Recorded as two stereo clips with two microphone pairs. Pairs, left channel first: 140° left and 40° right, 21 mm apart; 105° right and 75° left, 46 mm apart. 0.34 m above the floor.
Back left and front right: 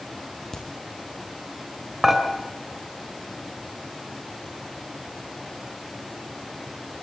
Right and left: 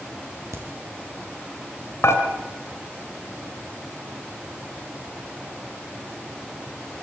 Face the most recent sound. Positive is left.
turn(degrees=-120)